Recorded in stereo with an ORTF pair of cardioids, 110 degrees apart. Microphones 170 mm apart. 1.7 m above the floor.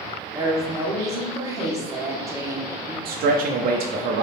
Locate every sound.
0.3 s a woman speaking: 20° right, 1.5 m
3.0 s a man speaking: 65° right, 0.6 m